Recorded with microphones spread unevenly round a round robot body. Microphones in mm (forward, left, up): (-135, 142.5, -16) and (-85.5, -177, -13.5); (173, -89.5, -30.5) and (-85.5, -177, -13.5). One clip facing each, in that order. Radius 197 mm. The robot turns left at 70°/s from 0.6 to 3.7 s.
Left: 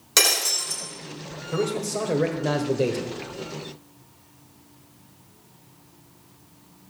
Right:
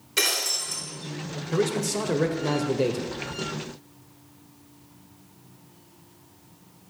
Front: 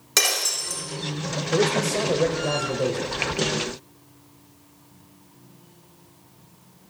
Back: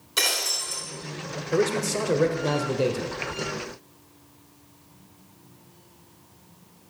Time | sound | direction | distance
0.2 | breaking glass | 55° left | 4 m
1.5 | a man speaking | 70° right | 1.3 m